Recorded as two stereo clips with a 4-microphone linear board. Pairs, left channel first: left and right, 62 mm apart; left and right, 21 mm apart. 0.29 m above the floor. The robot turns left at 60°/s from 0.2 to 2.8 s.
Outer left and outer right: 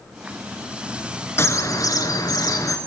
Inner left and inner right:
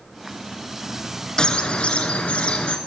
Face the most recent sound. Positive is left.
turn(degrees=55)